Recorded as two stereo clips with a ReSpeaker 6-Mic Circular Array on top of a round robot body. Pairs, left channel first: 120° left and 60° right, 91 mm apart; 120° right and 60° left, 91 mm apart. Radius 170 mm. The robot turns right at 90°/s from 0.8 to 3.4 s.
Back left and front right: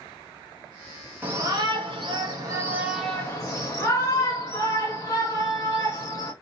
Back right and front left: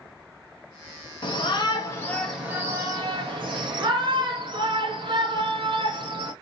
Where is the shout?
130° right, 1.8 m; by 6.3 s 70° left, 1.8 m.